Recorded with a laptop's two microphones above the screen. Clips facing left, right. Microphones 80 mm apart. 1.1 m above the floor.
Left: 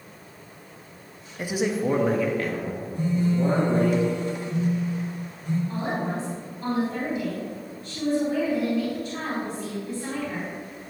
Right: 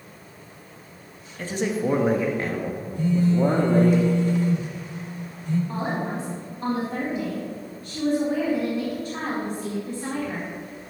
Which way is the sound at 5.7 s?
40° right (ahead or behind).